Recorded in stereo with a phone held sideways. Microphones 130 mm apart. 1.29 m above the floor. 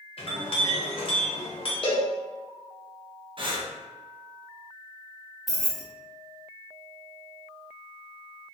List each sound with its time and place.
0.2 s a clink: 45° left (ahead or behind), 0.8 m
1.8 s a cowbell: 45° left (ahead or behind), 0.8 m
3.4 s breathing: 45° right (ahead or behind), 0.5 m
5.5 s keys jangling: centre (ahead or behind), 0.7 m